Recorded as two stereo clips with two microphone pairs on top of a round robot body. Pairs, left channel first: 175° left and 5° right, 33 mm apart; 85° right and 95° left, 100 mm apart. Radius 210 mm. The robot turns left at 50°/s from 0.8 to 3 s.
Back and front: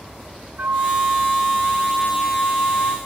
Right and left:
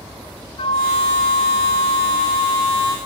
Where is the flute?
50° right, 0.8 m; by 3.0 s 160° right, 0.8 m.